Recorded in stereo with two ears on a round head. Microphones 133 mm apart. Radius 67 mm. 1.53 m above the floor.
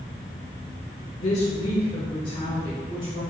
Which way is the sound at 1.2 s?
45° left (ahead or behind).